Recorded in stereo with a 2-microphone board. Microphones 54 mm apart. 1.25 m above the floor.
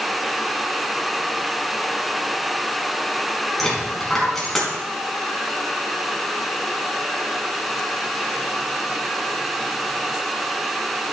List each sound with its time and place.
3.6 s a dropped coin: 5° left (ahead or behind), 3.5 m